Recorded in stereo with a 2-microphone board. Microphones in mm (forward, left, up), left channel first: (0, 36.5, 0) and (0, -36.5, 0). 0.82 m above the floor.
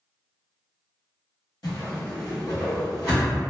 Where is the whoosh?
60° left (ahead or behind), 1.4 m.